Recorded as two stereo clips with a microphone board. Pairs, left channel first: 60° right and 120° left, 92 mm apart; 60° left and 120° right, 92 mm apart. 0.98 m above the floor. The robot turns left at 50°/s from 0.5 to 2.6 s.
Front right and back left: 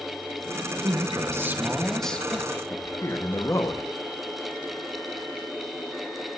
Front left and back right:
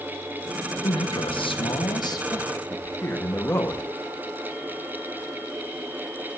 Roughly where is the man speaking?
Left.